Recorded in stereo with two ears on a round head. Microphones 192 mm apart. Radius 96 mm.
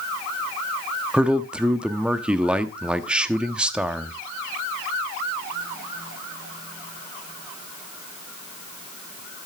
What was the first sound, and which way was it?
A man speaking, 5° right (ahead or behind).